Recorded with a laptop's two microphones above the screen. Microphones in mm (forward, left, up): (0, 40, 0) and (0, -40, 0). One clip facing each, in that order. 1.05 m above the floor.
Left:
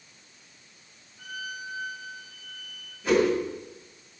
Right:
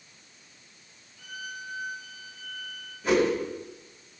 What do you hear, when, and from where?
1.2 s a violin: 30° left (ahead or behind), 3 m
3.0 s a whoosh: 5° right (ahead or behind), 6.5 m